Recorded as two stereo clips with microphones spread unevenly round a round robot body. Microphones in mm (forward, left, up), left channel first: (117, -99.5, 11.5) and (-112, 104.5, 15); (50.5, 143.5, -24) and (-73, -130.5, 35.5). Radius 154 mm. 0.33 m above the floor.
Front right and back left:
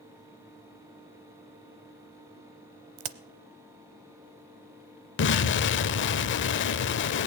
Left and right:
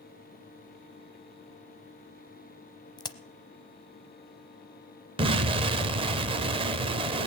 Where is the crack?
140° left, 0.7 m.